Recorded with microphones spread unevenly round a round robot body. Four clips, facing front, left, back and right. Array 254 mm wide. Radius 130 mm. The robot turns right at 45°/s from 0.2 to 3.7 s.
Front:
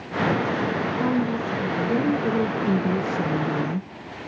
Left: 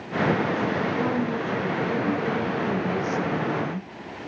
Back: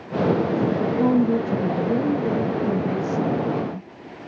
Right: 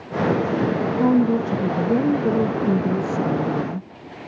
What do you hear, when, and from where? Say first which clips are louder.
0.8 s a woman speaking: right 7 dB, back 6 dB; 140° right, 0.6 m; by 4.3 s 10° right, 0.6 m